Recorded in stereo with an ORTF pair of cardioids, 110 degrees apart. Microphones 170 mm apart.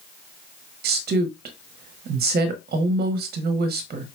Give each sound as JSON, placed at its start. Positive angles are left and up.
{"t": 0.8, "sound": "a woman speaking", "azimuth_deg": -65, "distance_m": 1.0}